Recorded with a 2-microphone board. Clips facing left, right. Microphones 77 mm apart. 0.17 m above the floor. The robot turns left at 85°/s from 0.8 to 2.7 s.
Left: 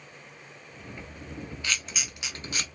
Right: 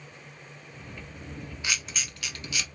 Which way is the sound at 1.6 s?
15° right (ahead or behind).